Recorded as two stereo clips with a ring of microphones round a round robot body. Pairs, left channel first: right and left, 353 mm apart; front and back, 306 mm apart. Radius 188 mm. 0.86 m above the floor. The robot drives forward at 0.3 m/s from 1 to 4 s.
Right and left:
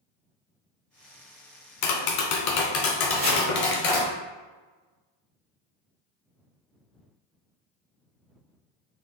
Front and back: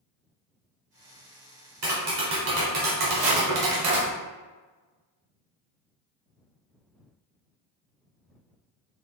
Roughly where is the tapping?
Behind right.